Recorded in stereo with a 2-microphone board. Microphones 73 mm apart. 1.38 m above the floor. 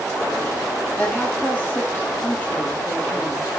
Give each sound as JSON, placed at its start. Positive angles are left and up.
{"t": 1.0, "sound": "a woman speaking", "side_deg": 25, "distance_m": 6.0}